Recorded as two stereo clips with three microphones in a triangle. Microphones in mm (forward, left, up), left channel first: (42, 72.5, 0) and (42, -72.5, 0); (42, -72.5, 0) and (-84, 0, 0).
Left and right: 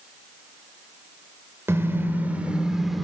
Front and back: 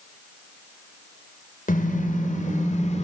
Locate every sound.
1.7 s a car horn: 15° right, 3.5 m; by 3.0 s straight ahead, 2.5 m